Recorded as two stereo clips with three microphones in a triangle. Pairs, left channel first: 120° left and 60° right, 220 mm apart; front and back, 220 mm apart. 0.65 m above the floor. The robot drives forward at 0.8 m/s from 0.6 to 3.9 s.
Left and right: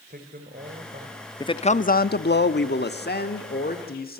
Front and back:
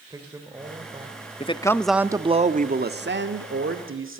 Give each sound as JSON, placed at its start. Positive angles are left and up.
{"t": 0.1, "sound": "a man speaking", "azimuth_deg": -105, "distance_m": 2.5}
{"t": 1.4, "sound": "a man speaking", "azimuth_deg": 50, "distance_m": 0.8}